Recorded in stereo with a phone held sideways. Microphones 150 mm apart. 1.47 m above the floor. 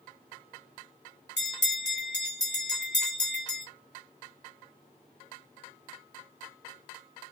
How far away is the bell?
About 2.0 m.